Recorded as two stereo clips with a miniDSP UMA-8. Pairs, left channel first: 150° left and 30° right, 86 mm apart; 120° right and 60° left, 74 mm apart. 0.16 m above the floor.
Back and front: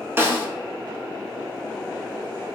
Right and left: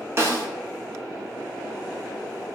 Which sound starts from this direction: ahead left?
A snare drum, at 0.2 s.